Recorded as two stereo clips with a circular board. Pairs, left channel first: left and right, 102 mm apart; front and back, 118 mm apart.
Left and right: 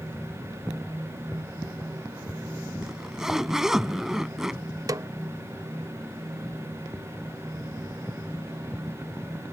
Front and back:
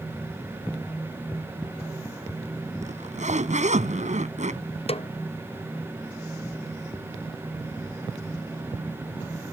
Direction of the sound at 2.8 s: 175° right.